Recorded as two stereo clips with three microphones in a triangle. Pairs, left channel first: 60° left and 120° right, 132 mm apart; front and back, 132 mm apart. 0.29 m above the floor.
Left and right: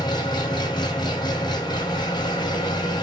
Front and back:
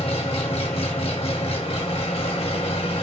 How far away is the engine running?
About 1.6 m.